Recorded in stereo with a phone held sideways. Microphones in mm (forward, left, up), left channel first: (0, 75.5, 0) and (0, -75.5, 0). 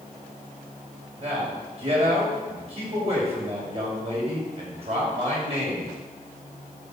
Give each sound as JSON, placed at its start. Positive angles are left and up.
{"t": 1.2, "sound": "a man speaking", "side_deg": -45, "distance_m": 6.0}